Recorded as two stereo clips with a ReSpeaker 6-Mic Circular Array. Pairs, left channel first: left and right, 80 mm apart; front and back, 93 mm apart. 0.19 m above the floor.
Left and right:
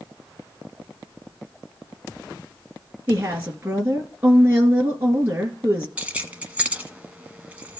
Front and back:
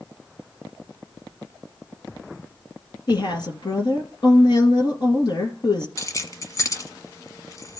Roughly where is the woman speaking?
Ahead right.